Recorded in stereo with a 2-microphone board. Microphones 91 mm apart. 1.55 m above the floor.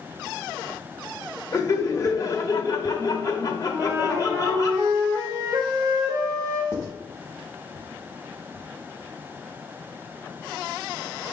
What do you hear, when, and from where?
1.5 s laughter: 35° left (ahead or behind), 0.7 m
3.7 s a flute: 30° right (ahead or behind), 0.6 m
6.7 s writing: 25° left (ahead or behind), 0.9 m